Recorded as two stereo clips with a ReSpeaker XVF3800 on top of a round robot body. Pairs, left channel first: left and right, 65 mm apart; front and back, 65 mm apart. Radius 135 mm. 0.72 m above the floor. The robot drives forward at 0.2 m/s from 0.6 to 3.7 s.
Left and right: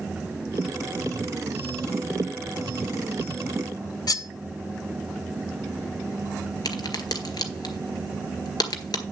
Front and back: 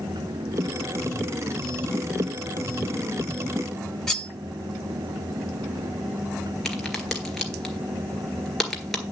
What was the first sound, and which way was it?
Cutlery clinking, 85° left.